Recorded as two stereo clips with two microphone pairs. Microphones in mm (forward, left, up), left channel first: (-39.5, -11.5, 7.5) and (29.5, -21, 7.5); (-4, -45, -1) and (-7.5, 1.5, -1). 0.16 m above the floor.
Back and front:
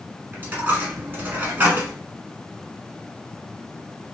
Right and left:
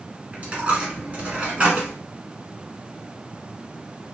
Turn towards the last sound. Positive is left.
turn(degrees=40)